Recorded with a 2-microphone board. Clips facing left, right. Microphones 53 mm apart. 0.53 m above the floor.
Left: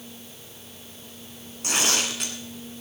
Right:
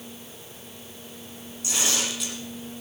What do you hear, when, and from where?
1.6 s tearing paper: 55° left (ahead or behind), 1.9 m